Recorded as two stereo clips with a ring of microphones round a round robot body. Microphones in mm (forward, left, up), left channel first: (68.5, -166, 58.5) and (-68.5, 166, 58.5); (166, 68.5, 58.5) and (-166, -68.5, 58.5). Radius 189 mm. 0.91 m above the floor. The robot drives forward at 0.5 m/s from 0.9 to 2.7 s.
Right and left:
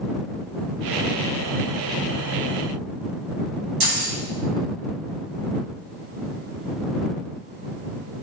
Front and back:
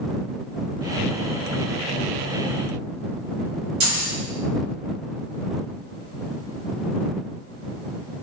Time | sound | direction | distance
3.8 | keys jangling | 150° left | 1.1 m